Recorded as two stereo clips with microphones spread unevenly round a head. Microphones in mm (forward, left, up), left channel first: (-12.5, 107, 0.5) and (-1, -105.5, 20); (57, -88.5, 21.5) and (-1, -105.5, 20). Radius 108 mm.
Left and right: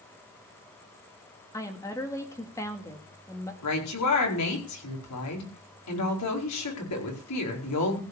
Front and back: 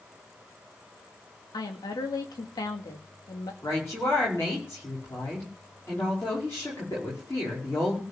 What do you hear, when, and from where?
1.5 s a woman speaking: 15° left, 2.0 m
3.6 s a woman speaking: 90° left, 4.5 m